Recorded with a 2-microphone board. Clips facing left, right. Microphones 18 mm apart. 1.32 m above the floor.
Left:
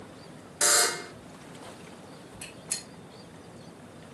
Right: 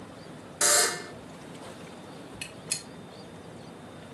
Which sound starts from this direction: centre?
A buzzer, at 0.6 s.